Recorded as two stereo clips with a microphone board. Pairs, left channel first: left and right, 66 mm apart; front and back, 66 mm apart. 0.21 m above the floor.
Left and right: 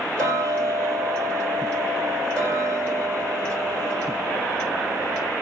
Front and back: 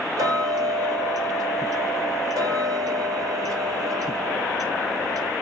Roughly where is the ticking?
Behind.